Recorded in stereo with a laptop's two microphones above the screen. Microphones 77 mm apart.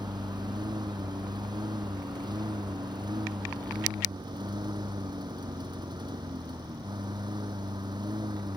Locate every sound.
0.0 s a lawn mower: 70° right (ahead or behind)